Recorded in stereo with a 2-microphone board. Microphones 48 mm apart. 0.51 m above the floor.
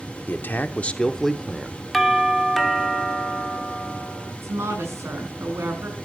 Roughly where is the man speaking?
Left.